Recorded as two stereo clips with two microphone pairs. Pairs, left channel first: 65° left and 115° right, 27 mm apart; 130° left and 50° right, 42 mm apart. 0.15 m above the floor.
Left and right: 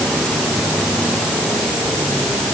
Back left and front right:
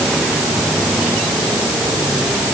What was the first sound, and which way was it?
Only background noise.